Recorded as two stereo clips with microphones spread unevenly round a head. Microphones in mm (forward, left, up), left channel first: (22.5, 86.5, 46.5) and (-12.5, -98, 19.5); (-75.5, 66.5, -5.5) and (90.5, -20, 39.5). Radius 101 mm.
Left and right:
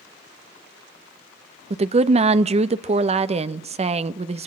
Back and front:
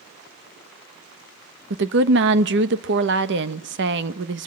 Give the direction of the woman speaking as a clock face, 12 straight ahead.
2 o'clock.